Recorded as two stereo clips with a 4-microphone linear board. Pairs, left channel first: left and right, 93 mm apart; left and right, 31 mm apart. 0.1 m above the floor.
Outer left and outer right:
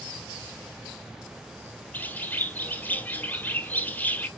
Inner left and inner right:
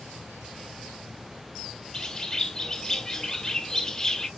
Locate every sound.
1.9 s a bird: 20° left (ahead or behind), 0.8 m